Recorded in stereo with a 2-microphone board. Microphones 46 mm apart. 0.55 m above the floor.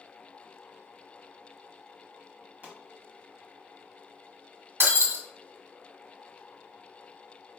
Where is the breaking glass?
60° right (ahead or behind), 1.5 m.